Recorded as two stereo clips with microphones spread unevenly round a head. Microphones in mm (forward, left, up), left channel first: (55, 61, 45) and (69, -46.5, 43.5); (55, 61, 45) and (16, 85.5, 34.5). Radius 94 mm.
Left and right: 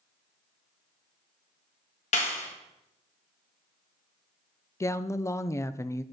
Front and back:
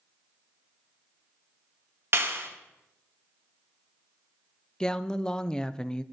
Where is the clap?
125° left, 1.8 m.